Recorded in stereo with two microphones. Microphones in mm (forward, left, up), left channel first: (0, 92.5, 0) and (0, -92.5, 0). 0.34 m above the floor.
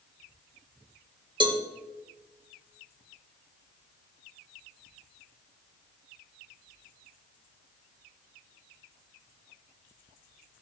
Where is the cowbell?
25° right (ahead or behind), 1.6 m.